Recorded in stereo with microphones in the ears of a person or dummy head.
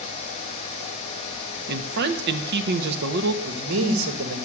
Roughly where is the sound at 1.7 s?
Right.